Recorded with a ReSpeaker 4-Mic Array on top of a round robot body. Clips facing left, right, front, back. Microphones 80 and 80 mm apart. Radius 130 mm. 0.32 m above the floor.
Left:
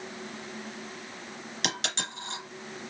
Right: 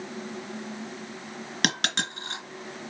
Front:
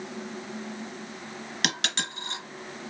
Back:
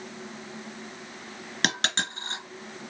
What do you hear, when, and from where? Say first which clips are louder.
1.6 s a dropped coin: right 5 dB, back 3 dB; 125° right, 2.5 m